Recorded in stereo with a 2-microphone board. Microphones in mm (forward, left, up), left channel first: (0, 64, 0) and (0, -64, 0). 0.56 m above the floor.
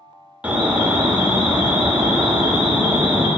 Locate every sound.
0.4 s an alarm: 10° right (ahead or behind), 1.2 m